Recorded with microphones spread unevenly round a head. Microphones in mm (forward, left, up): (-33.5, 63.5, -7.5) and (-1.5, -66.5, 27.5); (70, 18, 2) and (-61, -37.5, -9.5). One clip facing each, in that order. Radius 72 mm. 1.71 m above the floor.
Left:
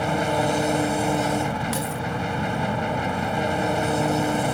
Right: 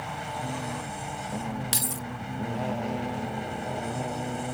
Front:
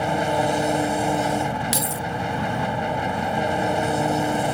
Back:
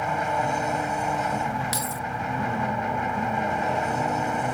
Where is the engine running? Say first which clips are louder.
Left 12 dB, front 4 dB; 75° left.